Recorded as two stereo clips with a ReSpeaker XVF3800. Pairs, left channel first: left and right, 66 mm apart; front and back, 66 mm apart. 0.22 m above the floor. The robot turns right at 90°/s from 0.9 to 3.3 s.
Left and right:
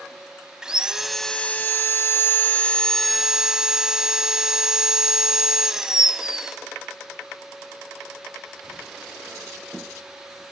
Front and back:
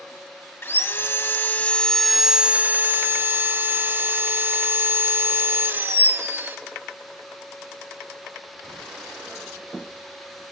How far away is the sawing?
About 0.6 m.